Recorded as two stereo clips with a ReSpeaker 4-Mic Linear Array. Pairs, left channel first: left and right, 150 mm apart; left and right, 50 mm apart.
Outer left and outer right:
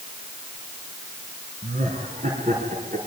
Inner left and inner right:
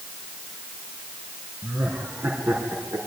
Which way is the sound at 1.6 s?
55° right (ahead or behind).